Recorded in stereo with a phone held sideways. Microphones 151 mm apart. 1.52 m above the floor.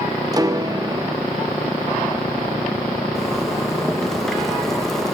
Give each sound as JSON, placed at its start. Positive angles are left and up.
{"t": 0.3, "sound": "a piano", "side_deg": -25, "distance_m": 1.0}
{"t": 3.1, "sound": "a zipper", "side_deg": 5, "distance_m": 2.0}